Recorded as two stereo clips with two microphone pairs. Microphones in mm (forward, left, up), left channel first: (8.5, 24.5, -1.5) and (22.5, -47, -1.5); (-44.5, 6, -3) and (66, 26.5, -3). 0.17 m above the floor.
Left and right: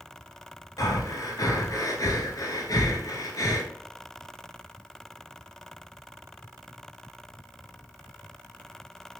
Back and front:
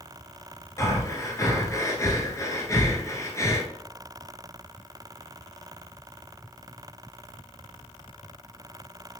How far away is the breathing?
About 0.8 m.